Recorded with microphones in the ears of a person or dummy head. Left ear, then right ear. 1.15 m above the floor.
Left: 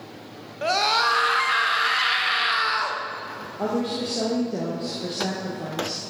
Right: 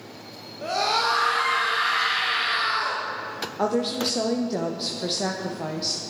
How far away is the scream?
About 0.6 m.